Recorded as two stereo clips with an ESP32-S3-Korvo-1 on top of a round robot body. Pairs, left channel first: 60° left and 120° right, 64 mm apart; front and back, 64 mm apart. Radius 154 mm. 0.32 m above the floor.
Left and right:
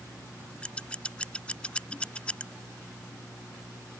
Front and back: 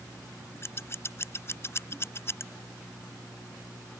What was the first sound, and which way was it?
Scissors, 5° right.